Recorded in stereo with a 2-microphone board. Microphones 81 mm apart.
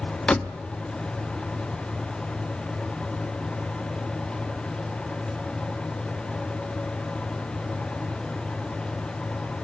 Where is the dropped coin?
No dropped coin in this recording.